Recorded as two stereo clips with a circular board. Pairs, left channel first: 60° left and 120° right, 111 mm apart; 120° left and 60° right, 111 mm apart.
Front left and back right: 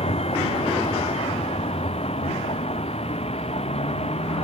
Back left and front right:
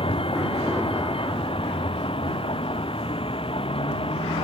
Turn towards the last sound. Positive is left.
turn(degrees=85)